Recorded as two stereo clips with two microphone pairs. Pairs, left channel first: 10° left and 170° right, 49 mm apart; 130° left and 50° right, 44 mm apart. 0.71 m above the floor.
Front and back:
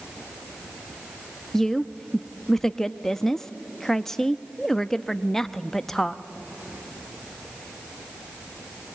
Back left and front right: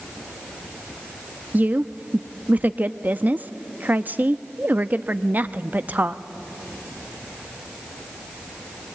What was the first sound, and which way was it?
A woman speaking, 65° right.